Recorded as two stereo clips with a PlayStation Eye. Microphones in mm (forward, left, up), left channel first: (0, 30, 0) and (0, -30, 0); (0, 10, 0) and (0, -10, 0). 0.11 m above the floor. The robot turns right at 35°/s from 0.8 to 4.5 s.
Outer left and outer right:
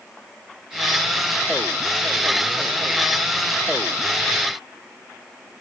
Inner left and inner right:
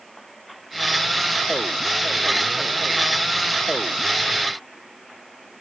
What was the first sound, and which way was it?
Only background noise.